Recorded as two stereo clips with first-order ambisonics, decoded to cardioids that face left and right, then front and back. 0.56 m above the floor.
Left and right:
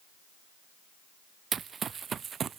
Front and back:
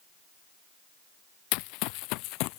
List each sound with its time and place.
1.5 s running footsteps: 20° right; by 2.6 s 25° right